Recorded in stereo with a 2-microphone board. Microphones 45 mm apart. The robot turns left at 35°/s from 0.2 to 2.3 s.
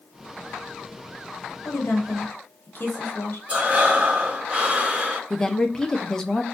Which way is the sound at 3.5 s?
30° right (ahead or behind).